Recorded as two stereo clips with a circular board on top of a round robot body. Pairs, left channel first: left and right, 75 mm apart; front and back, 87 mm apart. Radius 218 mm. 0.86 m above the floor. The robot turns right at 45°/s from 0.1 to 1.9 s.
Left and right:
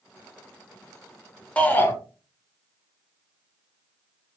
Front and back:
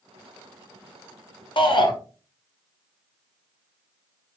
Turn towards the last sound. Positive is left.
turn(degrees=30)